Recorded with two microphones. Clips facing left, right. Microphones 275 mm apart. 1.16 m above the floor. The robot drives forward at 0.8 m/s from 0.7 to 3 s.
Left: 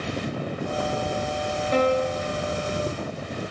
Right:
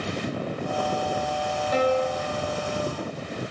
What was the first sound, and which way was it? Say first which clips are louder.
A piano: left 1 dB; 30° left (ahead or behind).